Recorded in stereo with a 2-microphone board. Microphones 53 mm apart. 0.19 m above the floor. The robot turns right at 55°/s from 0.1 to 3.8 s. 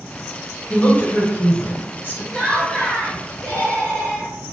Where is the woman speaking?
25° left (ahead or behind), 1.3 m; by 2.2 s 40° left (ahead or behind), 1.3 m.